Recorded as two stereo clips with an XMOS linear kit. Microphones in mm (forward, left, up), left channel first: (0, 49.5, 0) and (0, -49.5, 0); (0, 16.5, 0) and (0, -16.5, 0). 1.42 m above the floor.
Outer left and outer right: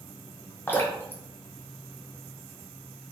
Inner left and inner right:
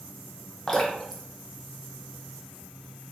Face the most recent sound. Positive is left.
turn(degrees=20)  # may be behind; listen again after turning